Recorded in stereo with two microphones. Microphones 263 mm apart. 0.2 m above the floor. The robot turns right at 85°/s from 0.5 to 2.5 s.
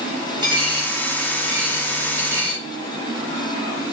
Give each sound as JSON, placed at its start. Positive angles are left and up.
{"t": 0.4, "sound": "a dropped coin", "side_deg": -15, "distance_m": 8.0}